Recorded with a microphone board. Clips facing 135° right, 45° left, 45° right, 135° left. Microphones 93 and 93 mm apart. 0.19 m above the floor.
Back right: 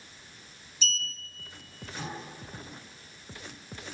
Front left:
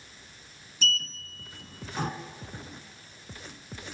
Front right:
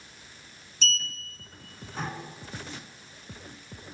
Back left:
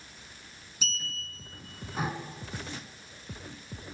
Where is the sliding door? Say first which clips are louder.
Front left 4 dB, front right 6 dB; 55° left, 2 m.